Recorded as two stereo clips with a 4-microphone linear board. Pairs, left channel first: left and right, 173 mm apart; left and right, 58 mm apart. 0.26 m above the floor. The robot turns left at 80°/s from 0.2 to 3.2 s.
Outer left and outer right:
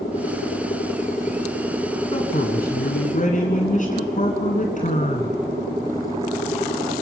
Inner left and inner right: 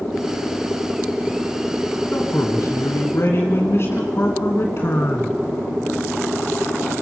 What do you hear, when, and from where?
2.1 s a man speaking: 145° left, 2 m; by 5.4 s 55° left, 2 m